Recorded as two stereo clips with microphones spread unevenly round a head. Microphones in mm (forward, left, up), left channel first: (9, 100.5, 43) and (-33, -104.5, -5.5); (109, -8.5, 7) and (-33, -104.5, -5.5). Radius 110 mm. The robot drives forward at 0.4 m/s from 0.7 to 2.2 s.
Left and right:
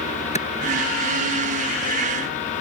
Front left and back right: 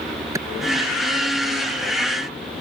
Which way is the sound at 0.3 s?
135° left.